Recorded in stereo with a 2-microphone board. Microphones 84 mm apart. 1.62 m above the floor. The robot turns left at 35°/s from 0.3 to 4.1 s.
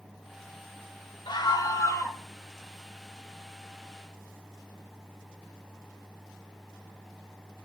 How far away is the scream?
About 2.5 m.